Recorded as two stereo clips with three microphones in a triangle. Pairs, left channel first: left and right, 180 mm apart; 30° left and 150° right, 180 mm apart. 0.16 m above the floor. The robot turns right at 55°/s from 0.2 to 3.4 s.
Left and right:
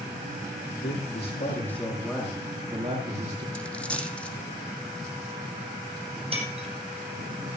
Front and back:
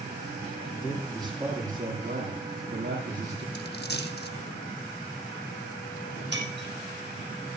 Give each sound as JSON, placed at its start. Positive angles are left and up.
{"t": 0.8, "sound": "a man speaking", "azimuth_deg": 95, "distance_m": 6.0}
{"t": 3.5, "sound": "a dropped coin", "azimuth_deg": 5, "distance_m": 2.5}
{"t": 6.3, "sound": "breaking glass", "azimuth_deg": -145, "distance_m": 4.0}